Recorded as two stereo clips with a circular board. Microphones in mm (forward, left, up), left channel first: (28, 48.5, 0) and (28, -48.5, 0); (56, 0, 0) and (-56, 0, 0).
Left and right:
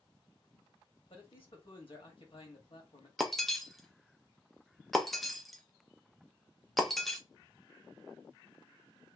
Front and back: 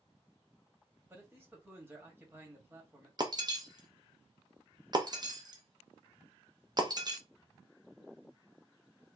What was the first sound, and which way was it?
A man speaking, 110° left.